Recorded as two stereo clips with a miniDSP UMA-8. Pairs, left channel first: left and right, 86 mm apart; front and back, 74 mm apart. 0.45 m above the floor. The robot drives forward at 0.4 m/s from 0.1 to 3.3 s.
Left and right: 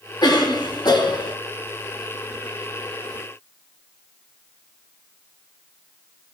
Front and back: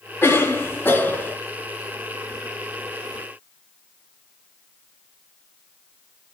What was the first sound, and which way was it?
A cough, 55° left.